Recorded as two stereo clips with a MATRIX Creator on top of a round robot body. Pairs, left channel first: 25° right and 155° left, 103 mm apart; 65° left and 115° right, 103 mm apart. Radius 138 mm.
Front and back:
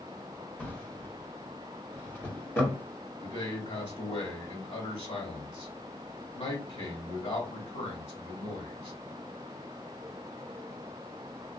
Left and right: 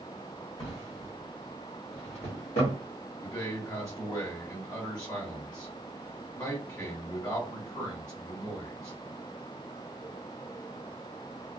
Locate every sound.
0.6 s a drawer: 45° left, 1.2 m
3.2 s a man speaking: straight ahead, 1.6 m